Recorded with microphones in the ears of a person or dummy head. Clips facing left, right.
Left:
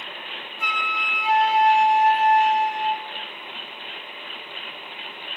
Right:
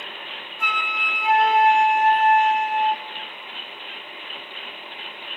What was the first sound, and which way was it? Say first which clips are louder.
A flute: right 1 dB; 35° right (ahead or behind).